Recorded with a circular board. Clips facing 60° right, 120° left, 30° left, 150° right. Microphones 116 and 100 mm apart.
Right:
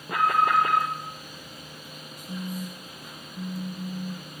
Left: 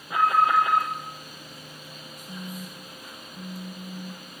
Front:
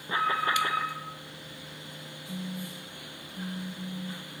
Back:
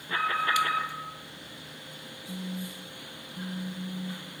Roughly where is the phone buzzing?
Behind.